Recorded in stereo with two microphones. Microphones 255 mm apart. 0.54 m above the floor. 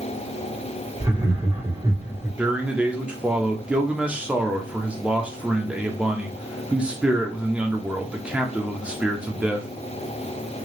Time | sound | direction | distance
1.0 | laughter | 15° right (ahead or behind) | 1.1 m
2.4 | a man speaking | 5° right (ahead or behind) | 0.7 m